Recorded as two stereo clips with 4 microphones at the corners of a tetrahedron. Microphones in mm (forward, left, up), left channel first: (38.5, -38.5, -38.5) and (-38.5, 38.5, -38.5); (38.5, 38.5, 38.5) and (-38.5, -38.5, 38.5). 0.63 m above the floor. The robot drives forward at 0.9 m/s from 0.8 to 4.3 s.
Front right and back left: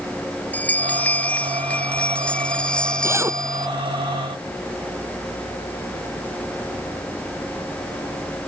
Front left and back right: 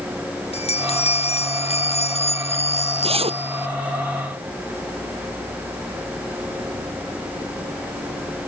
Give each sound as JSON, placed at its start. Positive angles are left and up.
{"t": 0.5, "sound": "a bell", "azimuth_deg": 30}
{"t": 3.0, "sound": "a zipper", "azimuth_deg": -160}